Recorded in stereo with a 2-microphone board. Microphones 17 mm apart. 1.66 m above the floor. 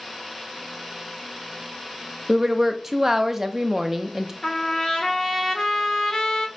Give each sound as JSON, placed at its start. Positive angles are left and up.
{"t": 2.3, "sound": "a woman speaking", "side_deg": -25, "distance_m": 0.5}
{"t": 4.4, "sound": "a trumpet", "side_deg": 30, "distance_m": 1.0}